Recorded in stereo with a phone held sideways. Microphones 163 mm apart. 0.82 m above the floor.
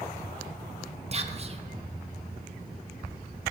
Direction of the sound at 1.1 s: 40° right (ahead or behind).